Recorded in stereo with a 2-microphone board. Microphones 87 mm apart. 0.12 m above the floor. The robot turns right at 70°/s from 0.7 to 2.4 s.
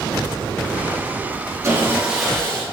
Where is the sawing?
40° right, 4.5 m; by 2.6 s 15° left, 4.5 m.